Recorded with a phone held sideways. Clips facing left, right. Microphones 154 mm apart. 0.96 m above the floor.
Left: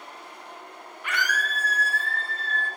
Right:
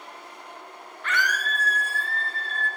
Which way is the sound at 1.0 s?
10° left (ahead or behind).